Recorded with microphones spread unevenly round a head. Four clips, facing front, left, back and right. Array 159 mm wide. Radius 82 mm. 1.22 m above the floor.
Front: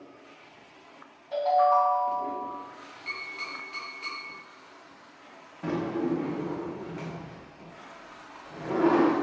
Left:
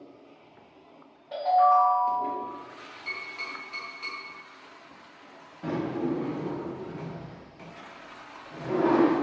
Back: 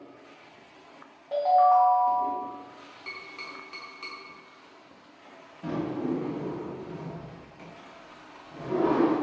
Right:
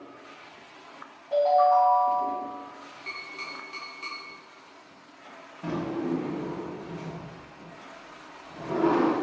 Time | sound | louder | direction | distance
1.3 | a ringtone | right 1 dB, back 2 dB | 170° right | 1.2 m
3.1 | tapping | left 2 dB, front 4 dB | 160° right | 1.0 m
5.6 | a drawer | left 1 dB, front 1 dB | 25° left | 0.8 m